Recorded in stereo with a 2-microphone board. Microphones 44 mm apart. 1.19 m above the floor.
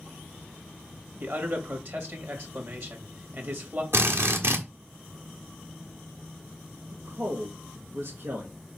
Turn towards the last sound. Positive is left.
turn(degrees=-60)  # may be behind; listen again after turning